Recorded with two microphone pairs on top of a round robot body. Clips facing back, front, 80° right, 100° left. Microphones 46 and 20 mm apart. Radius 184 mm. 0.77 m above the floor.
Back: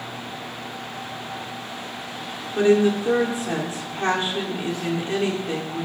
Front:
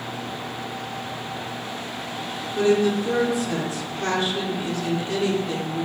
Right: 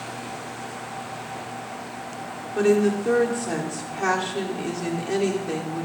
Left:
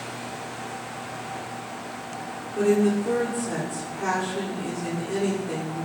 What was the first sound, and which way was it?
A woman speaking, 125° right.